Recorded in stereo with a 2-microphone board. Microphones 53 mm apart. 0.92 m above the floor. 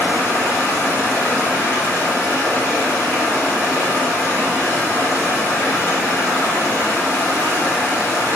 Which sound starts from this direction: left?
Running water, at 0.0 s.